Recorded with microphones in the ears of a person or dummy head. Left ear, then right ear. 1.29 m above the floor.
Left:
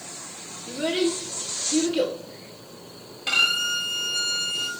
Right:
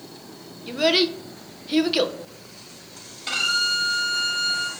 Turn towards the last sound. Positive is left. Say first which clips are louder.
# left 1 dB
turn(degrees=10)  # may be behind; listen again after turning